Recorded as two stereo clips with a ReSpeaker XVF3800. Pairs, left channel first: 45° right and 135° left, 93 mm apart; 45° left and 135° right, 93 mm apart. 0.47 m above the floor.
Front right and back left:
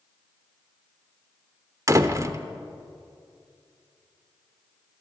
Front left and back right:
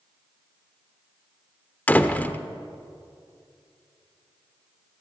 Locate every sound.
1.9 s a door slam: 105° left, 1.1 m